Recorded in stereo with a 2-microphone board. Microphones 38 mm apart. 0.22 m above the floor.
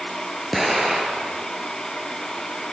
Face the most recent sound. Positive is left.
turn(degrees=0)  # may be behind; listen again after turning